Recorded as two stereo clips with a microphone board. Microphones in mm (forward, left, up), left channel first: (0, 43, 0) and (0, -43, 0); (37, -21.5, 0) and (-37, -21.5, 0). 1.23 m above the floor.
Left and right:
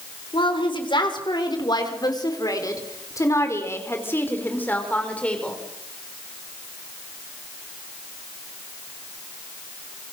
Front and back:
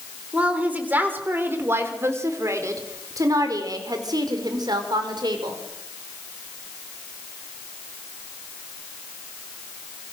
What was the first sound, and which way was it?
A woman speaking, 110° left.